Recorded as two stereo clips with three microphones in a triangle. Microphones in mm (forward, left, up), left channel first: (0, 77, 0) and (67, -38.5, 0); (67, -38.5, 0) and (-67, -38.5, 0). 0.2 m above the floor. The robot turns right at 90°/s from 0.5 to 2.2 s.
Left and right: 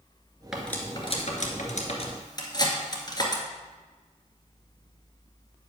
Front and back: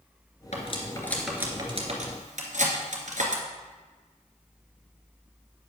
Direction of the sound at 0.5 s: 25° left.